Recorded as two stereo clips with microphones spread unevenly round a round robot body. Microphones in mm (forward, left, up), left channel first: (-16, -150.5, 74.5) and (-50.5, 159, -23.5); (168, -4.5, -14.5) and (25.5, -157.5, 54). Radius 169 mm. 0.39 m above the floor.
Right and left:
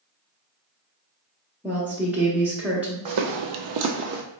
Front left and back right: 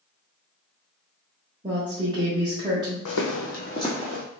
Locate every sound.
1.6 s a woman speaking: 140° left, 0.9 m
3.0 s footsteps: 60° left, 0.9 m; by 4.2 s 170° left, 0.9 m